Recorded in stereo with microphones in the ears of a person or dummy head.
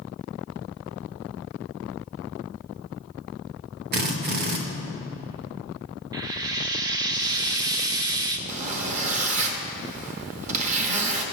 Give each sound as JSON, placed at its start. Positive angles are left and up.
{"t": 3.9, "sound": "a drill", "side_deg": -50, "distance_m": 1.0}
{"t": 6.1, "sound": "frying", "side_deg": -20, "distance_m": 0.6}
{"t": 8.5, "sound": "a zipper", "side_deg": -40, "distance_m": 0.9}